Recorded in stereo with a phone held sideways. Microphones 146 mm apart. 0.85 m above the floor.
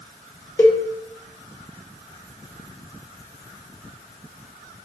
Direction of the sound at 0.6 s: 15° left (ahead or behind).